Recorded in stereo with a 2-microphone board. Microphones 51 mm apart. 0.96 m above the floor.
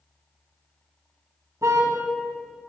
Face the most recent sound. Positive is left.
turn(degrees=-75)  # may be behind; listen again after turning